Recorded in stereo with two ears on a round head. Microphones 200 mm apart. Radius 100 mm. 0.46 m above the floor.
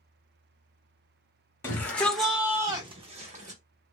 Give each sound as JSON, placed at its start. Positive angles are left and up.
{"t": 1.6, "sound": "a shout", "side_deg": 10, "distance_m": 1.1}